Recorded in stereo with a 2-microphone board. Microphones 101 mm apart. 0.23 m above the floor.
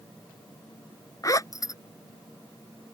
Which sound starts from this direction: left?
A zipper, at 1.2 s.